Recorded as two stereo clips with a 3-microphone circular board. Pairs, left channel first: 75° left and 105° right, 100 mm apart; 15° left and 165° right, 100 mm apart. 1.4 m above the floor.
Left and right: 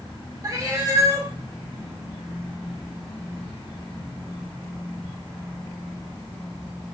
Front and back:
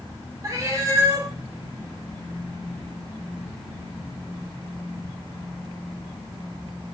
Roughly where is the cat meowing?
Behind right.